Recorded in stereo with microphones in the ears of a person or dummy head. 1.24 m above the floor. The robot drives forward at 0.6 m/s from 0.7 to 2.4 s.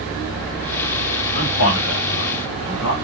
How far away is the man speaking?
About 1.1 m.